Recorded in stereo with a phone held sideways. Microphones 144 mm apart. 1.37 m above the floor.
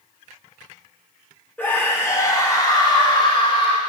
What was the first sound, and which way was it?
A scream, 10° left (ahead or behind).